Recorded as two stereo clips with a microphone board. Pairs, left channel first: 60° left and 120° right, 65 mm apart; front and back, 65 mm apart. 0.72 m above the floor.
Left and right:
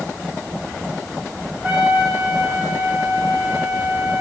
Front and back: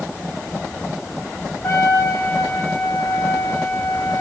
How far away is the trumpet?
About 4 m.